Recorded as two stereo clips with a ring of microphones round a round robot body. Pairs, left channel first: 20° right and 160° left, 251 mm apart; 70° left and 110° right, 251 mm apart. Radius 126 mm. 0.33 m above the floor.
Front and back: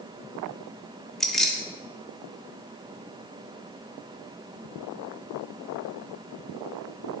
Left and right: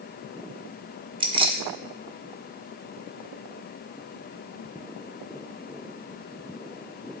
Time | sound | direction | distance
1.2 | keys jangling | 105° right | 0.6 m